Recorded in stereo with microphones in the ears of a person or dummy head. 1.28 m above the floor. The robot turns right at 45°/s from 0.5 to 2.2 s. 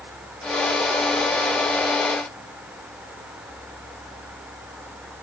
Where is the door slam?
I don't hear a door slam.